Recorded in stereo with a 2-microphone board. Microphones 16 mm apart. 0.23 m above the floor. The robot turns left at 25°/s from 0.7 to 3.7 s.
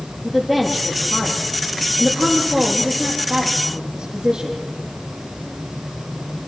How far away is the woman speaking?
About 8 m.